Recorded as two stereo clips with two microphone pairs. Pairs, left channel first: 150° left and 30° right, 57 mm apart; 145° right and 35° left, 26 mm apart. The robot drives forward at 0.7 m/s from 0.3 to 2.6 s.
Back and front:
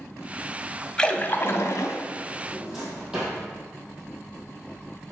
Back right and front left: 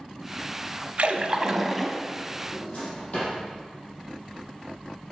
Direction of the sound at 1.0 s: 75° left.